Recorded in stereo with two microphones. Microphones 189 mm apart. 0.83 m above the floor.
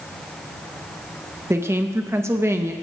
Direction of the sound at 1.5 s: 15° right (ahead or behind).